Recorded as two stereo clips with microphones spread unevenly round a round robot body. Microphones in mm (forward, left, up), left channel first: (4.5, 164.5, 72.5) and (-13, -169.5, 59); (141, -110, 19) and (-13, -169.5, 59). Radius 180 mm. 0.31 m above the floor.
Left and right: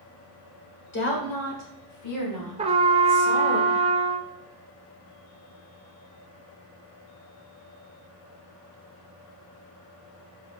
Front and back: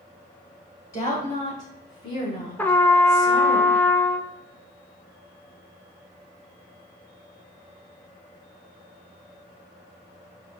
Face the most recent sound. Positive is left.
turn(degrees=-35)